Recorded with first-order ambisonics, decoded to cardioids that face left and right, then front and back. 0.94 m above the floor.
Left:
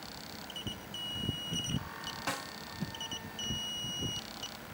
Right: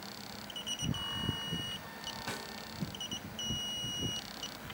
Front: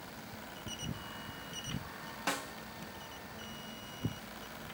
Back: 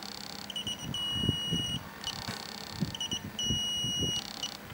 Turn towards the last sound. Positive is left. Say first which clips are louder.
# left 7 dB, front 3 dB
turn(degrees=30)